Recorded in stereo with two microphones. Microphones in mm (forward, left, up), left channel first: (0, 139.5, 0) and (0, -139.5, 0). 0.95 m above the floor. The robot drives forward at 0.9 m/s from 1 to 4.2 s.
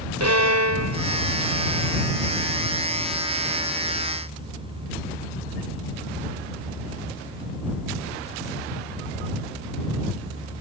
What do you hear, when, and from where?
0.2 s a violin: 70° right (ahead or behind); by 2.1 s 80° right